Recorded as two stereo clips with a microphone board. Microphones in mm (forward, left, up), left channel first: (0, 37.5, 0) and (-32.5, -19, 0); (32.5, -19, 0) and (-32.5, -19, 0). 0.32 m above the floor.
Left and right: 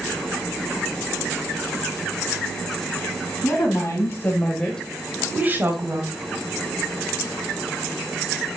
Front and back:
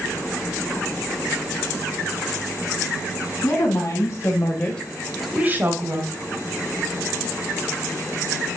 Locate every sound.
3.4 s a woman speaking: 25° left, 2.5 m; by 6.0 s 150° right, 1.9 m